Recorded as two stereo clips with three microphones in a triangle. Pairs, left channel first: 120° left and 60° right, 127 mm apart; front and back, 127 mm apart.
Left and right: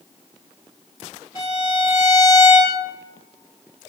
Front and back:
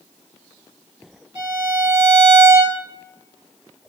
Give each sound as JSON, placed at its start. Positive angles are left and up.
{"t": 1.4, "sound": "a violin", "azimuth_deg": 170, "distance_m": 1.8}